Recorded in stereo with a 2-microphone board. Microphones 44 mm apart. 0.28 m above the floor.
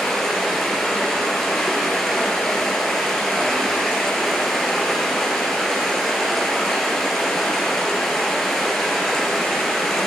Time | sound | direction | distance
0.0 | running water | 10° left (ahead or behind) | 2 m